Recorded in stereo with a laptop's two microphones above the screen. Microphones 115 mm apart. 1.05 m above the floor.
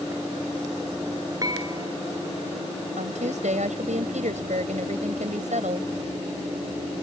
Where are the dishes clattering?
30° right (ahead or behind).